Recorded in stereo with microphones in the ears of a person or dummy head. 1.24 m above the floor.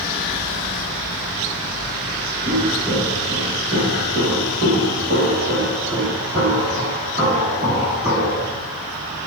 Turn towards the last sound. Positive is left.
turn(degrees=-30)  # may be behind; listen again after turning